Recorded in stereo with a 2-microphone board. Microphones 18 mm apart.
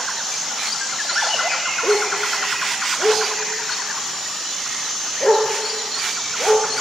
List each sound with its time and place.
1.8 s a dog barking: 75° left (ahead or behind), 2.5 m; by 6.7 s 30° left (ahead or behind), 4 m